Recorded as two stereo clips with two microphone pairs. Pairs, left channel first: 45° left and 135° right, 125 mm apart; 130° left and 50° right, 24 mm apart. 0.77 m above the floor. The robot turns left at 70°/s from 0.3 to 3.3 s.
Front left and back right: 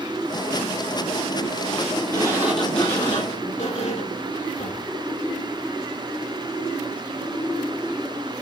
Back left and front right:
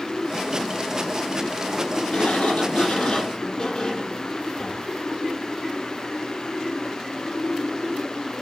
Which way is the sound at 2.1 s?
170° left.